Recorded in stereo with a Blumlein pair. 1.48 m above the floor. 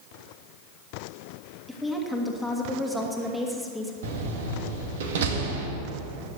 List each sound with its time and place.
1.7 s a woman speaking: straight ahead, 2.5 m
4.0 s a door slam: 55° right, 1.9 m